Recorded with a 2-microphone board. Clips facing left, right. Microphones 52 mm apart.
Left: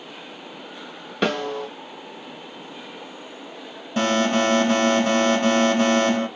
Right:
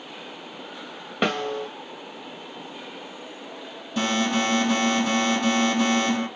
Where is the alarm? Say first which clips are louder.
Left 4 dB; 35° left (ahead or behind), 2.5 m.